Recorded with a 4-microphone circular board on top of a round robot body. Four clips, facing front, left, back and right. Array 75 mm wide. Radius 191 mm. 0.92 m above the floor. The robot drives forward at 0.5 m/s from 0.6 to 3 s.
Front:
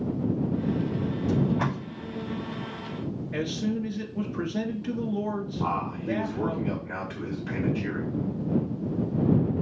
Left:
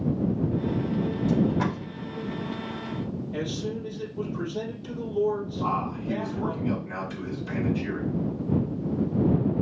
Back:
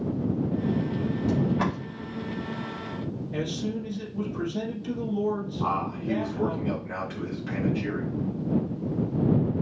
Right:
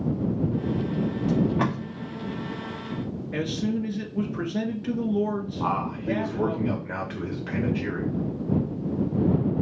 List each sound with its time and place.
1.3 s tape being pulled: 95° right, 2.5 m; by 1.8 s 100° right, 2.5 m
3.3 s a man speaking: 60° right, 1.7 m
5.6 s a man speaking: 95° right, 1.9 m